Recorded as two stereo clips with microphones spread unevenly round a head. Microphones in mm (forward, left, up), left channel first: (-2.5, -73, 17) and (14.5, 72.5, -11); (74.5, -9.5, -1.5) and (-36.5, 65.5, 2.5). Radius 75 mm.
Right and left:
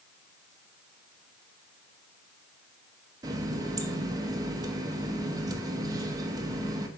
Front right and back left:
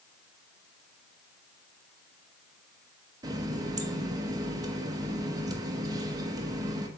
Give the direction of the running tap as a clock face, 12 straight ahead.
7 o'clock.